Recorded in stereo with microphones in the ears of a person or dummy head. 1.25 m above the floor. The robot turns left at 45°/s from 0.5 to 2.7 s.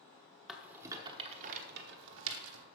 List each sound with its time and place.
0.5 s a rattle: centre (ahead or behind), 0.9 m; by 2.6 s 65° right (ahead or behind), 0.9 m